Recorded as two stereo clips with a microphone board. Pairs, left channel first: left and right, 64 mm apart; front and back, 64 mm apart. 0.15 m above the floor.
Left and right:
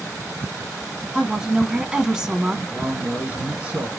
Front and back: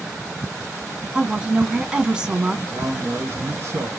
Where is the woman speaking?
140° right, 1.0 m.